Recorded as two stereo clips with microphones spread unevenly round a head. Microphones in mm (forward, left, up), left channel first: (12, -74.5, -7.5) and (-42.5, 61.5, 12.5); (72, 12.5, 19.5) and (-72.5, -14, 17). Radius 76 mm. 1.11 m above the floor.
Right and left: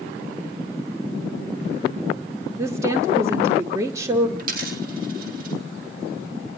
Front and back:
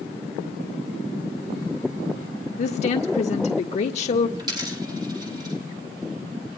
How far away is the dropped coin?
About 4 m.